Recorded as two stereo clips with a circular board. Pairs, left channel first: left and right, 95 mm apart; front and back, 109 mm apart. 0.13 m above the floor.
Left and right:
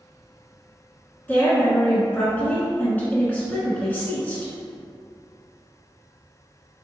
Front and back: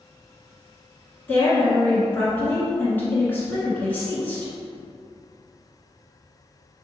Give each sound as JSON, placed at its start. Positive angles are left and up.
{"t": 1.3, "sound": "a woman speaking", "azimuth_deg": 45, "distance_m": 1.2}